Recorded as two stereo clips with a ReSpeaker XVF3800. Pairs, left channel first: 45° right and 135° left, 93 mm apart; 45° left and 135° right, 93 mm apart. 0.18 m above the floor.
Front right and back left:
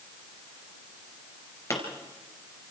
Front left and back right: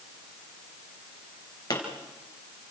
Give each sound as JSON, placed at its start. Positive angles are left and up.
{"t": 1.7, "sound": "a pop", "azimuth_deg": 5, "distance_m": 3.5}